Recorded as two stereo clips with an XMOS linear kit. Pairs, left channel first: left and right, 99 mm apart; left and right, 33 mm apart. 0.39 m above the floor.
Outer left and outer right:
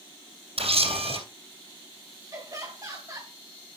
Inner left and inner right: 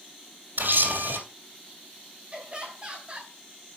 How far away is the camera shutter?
About 3 m.